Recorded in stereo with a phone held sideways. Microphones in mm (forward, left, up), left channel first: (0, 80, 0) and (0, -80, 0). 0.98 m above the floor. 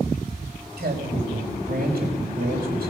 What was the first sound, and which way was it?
A man speaking, 80° right.